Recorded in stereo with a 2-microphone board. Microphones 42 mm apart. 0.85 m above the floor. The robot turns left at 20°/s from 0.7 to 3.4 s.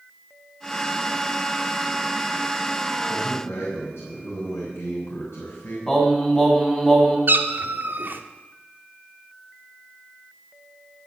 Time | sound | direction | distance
3.1 | a man speaking | 80° left | 6.5 m
5.9 | singing | 15° left (ahead or behind) | 3.5 m
7.3 | a cat meowing | 50° right (ahead or behind) | 1.1 m